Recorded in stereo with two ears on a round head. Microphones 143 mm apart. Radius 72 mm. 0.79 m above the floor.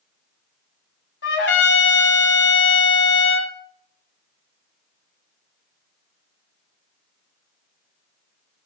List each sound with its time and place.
1.2 s a trumpet: 70° left (ahead or behind), 2 m